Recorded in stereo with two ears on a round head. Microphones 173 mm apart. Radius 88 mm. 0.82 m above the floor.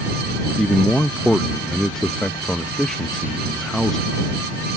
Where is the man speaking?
5° left (ahead or behind).